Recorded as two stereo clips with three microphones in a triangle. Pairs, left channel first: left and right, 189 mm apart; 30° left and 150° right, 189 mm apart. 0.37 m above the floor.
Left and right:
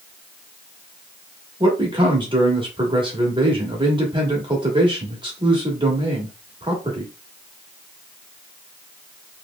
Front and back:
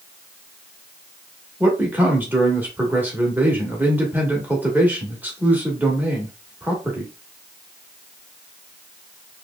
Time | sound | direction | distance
1.6 | a man speaking | 80° right | 1.1 m